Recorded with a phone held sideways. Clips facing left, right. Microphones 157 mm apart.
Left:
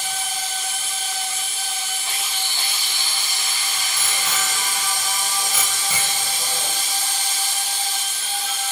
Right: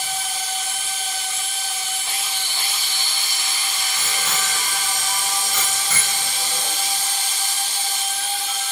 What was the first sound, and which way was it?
A bicycle bell, centre (ahead or behind).